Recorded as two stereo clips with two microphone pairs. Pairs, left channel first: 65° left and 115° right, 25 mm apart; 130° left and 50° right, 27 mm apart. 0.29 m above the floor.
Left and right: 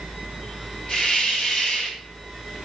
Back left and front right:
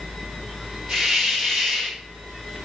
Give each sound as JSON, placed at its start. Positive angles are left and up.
{"t": 0.9, "sound": "a hiss", "azimuth_deg": 0, "distance_m": 6.0}